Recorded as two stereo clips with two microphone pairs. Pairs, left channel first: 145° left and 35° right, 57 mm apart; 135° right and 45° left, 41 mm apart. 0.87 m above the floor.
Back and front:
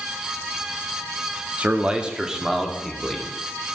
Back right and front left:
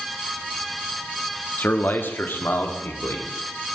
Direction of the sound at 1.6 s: 95° right.